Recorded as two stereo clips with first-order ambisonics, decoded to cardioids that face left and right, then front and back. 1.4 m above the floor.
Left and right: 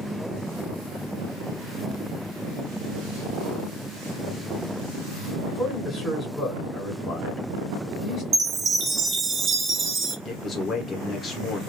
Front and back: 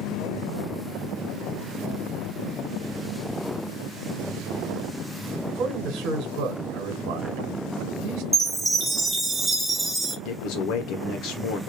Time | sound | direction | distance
5.5 | a man speaking | 160° left | 1.3 m
8.3 | a chime | 100° right | 0.6 m
10.2 | a man speaking | 20° left | 0.7 m